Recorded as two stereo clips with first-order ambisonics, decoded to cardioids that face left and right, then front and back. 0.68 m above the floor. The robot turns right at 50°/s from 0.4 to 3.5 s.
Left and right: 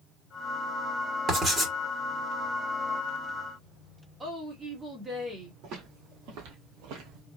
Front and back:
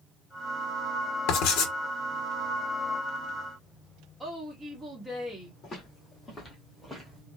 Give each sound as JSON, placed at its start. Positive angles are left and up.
{"t": 1.3, "sound": "writing", "azimuth_deg": -25, "distance_m": 1.3}
{"t": 4.2, "sound": "a woman speaking", "azimuth_deg": -100, "distance_m": 1.1}
{"t": 5.6, "sound": "footsteps", "azimuth_deg": -55, "distance_m": 1.8}